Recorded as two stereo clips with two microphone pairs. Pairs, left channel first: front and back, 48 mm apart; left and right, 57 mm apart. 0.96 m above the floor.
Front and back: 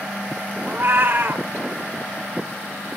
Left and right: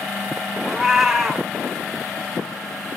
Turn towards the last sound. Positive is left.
turn(degrees=-175)